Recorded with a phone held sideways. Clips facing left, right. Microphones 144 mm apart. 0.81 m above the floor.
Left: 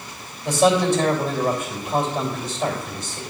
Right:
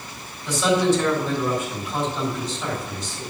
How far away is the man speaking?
About 3 m.